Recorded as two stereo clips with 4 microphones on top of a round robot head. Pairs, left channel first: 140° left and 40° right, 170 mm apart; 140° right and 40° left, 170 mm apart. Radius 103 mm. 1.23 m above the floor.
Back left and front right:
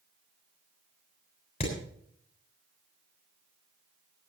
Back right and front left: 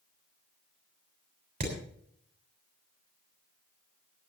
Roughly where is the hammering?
Left.